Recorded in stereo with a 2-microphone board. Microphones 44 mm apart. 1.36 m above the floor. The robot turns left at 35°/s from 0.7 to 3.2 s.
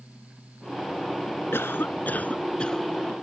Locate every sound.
1.5 s a cough: 60° left; by 2.9 s 10° left